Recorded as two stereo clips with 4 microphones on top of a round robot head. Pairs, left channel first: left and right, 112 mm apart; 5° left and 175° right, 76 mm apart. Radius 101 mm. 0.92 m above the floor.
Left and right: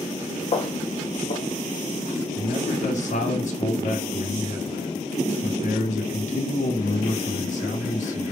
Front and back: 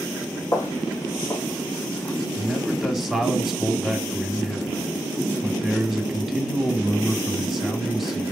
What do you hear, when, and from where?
0.5 s footsteps: 50° left, 2 m; by 2.1 s 75° left, 2.5 m
2.4 s a man speaking: 95° left, 3 m